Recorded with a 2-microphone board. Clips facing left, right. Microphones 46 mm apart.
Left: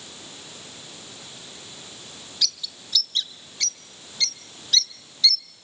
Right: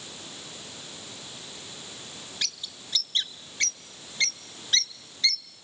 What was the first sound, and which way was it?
A bird, 40° right (ahead or behind).